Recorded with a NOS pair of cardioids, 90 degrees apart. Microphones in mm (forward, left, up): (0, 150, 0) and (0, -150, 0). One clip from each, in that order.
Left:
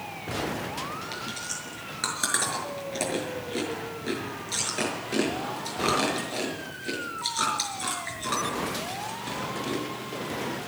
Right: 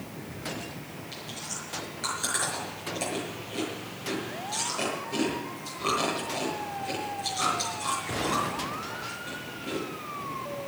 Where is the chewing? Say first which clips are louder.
Left 4 dB; 55° left, 6 m.